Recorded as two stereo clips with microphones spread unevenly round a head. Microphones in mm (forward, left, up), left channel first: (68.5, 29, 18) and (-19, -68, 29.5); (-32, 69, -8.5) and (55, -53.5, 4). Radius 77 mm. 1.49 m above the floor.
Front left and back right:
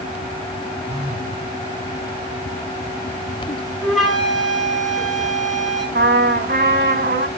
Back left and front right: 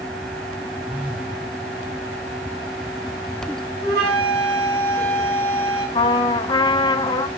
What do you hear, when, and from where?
0.9 s a phone buzzing: 135° right, 5.5 m
3.8 s a flute: 40° right, 6 m
6.0 s a trumpet: 165° right, 1.6 m